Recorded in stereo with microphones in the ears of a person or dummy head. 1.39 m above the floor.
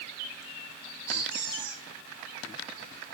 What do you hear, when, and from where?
1.1 s a squeak: 20° left (ahead or behind), 6.5 m